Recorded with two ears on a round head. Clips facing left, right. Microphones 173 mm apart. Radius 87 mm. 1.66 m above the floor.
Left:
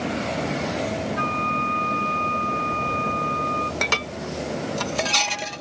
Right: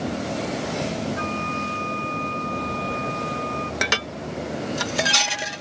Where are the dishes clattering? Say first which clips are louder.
Even; 10° right (ahead or behind).